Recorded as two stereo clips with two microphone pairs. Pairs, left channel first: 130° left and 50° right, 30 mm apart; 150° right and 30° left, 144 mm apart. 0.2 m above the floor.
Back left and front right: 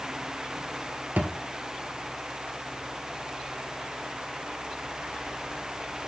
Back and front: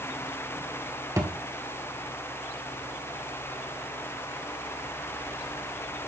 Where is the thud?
40° right, 1.8 m.